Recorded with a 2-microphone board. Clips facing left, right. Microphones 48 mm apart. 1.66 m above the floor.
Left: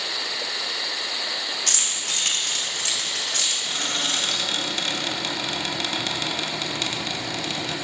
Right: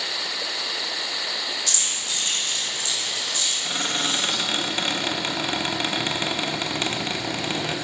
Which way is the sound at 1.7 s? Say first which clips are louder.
Left 1 dB; 55° left (ahead or behind).